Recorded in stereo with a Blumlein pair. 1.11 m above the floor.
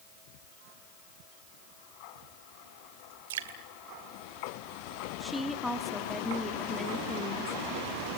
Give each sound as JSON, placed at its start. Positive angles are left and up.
{"t": 3.3, "sound": "dripping", "azimuth_deg": -60, "distance_m": 2.0}
{"t": 5.2, "sound": "a woman speaking", "azimuth_deg": 5, "distance_m": 2.5}